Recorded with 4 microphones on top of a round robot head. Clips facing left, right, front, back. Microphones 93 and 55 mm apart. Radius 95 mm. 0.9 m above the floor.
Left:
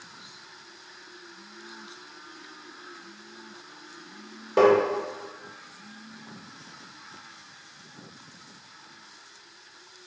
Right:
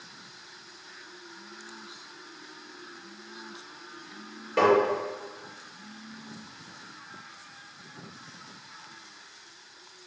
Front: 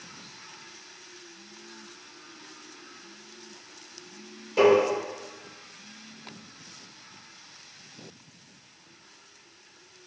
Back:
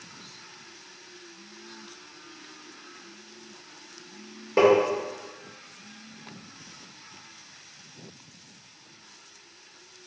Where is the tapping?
155° left, 1.8 m.